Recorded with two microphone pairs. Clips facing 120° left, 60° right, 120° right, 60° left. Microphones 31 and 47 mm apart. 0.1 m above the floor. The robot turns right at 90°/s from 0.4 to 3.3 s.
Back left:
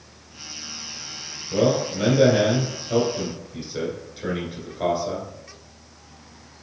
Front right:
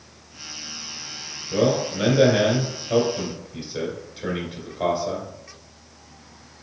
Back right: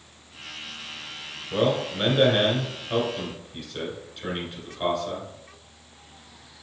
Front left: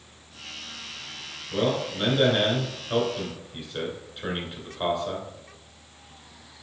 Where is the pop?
I don't hear a pop.